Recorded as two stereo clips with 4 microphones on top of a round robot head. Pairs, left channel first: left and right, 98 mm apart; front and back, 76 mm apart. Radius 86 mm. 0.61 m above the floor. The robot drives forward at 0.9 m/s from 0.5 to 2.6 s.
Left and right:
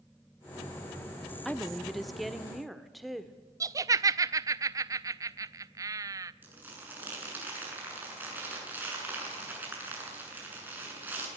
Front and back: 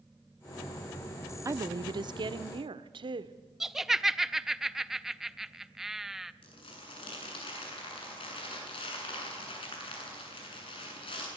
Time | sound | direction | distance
1.4 | a woman speaking | 175° left | 0.6 m
3.6 | laughter | 95° right | 0.6 m
6.4 | crumpling | 20° right | 8 m